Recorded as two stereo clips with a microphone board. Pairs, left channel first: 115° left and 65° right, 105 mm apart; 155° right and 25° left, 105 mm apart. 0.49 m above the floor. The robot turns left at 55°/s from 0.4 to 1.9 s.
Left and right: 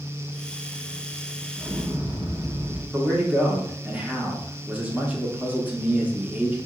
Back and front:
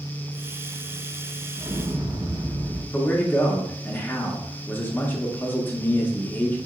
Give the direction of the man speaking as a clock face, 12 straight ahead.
4 o'clock.